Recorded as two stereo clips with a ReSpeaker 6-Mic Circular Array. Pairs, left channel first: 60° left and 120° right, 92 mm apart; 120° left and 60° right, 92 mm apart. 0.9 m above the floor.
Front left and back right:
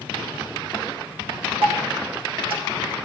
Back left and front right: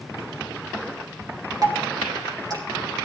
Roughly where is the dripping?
Right.